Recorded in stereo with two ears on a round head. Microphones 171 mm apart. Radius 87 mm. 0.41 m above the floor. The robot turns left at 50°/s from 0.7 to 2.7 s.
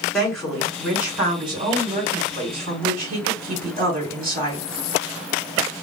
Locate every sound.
0.1 s a woman speaking: 5° left, 1.9 m; by 4.7 s 95° right, 1.9 m